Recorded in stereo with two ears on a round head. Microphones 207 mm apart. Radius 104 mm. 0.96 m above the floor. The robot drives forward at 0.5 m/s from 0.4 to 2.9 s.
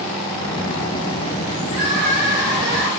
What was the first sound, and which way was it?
Crying, 60° right (ahead or behind).